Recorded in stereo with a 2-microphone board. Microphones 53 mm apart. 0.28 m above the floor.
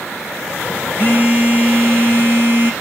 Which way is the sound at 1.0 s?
35° left (ahead or behind).